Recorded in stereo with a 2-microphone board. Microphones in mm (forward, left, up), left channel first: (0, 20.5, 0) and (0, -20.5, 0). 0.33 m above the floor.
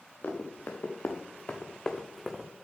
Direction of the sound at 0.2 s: 65° left (ahead or behind).